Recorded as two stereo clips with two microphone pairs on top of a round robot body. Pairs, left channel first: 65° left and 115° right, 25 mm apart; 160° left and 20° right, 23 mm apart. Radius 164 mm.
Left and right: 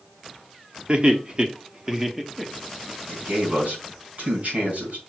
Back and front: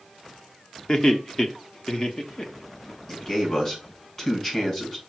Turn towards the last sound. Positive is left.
turn(degrees=-135)